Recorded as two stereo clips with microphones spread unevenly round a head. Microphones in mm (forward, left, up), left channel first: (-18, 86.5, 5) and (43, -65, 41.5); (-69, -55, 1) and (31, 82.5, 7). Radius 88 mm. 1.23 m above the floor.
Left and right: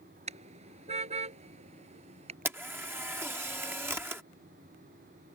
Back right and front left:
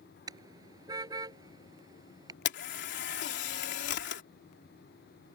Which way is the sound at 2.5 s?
145° right.